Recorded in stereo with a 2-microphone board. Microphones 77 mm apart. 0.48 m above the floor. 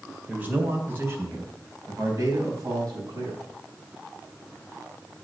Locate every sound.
0.3 s a man speaking: 20° right (ahead or behind), 2 m; by 3.4 s 55° right (ahead or behind), 5 m